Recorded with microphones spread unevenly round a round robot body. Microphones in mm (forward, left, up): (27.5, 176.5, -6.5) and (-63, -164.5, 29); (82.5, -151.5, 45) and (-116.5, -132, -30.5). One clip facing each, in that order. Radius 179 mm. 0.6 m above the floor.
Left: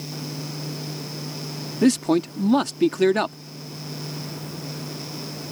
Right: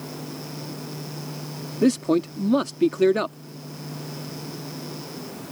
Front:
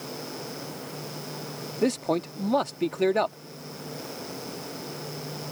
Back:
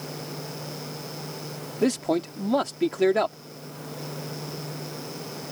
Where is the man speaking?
130° left.